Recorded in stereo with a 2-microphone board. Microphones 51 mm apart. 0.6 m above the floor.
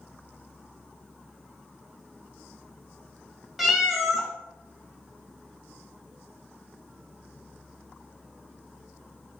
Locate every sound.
3.6 s a cat meowing: centre (ahead or behind), 0.6 m